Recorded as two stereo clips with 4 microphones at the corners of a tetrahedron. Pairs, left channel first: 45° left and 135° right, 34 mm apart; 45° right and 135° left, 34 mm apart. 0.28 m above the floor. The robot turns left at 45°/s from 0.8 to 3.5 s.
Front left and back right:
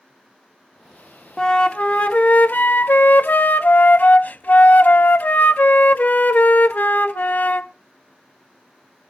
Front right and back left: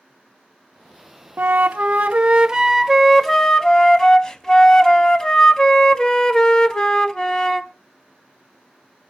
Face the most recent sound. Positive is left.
turn(degrees=20)